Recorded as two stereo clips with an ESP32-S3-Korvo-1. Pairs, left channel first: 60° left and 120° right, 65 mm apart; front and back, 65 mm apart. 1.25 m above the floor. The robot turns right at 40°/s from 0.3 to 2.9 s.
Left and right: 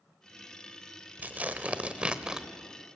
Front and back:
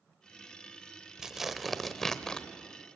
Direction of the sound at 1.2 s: 105° right.